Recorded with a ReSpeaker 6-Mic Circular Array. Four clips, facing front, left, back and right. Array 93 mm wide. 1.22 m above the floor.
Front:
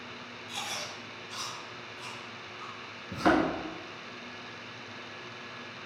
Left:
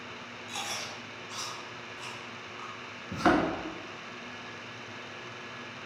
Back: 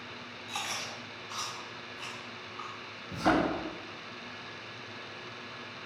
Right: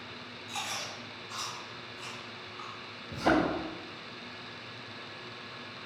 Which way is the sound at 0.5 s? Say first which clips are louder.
Even, back 1 dB; 165° left.